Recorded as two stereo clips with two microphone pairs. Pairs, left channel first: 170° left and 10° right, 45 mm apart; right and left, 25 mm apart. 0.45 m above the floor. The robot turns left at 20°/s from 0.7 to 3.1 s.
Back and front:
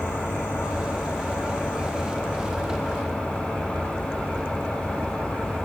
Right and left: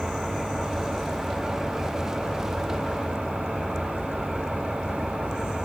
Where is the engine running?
145° left, 10 m; by 5.7 s 95° left, 10 m.